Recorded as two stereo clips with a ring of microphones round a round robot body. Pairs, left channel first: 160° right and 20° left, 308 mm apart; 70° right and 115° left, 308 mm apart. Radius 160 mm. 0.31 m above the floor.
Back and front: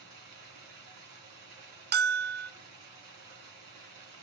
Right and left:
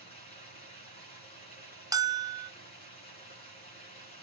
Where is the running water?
5° left, 3 m.